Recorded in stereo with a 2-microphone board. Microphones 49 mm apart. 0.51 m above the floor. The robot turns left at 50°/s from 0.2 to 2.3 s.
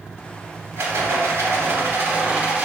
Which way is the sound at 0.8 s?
65° right.